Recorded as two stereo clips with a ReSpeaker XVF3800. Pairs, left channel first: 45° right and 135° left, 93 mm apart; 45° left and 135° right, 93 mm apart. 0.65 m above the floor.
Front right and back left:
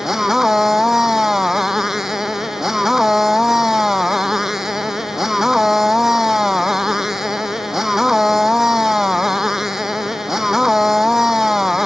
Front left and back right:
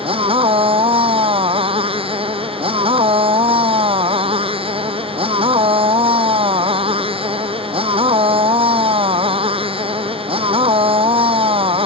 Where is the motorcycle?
140° right.